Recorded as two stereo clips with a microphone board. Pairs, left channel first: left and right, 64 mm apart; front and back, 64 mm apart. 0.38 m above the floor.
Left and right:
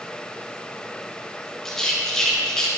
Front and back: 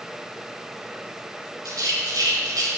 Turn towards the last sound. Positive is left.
turn(degrees=170)